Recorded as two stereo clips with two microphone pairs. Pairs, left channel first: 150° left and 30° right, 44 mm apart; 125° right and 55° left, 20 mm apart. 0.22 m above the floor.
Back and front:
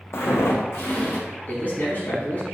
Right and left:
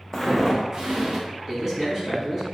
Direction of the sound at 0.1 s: 175° left.